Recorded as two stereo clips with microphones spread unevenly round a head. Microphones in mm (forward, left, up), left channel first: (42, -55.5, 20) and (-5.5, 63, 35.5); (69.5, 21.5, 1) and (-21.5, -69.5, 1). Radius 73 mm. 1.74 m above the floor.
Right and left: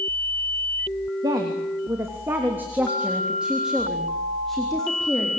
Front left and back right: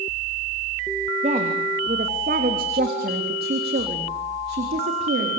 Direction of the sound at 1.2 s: 175° left.